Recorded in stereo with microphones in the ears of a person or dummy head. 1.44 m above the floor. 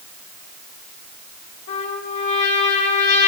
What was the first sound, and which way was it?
A trumpet, 65° left (ahead or behind).